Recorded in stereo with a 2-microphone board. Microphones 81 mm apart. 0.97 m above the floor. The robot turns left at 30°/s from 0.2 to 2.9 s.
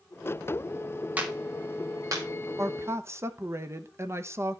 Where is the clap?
20° right (ahead or behind), 1.5 m; by 2.3 s 50° right (ahead or behind), 1.5 m.